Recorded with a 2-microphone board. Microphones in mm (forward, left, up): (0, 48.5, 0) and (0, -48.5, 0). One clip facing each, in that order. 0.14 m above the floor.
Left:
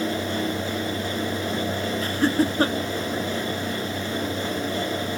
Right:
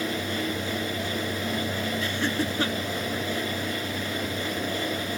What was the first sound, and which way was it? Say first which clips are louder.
Laughter: left 9 dB; 40° left (ahead or behind).